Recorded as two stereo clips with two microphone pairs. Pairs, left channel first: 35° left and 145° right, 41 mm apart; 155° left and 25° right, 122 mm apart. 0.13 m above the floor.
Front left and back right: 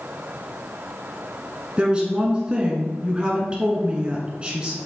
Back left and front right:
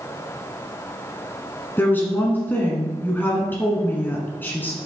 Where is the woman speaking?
160° right, 1.5 m.